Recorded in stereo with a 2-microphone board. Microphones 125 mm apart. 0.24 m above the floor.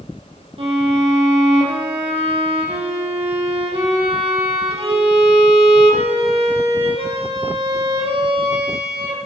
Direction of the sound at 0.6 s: 50° right (ahead or behind).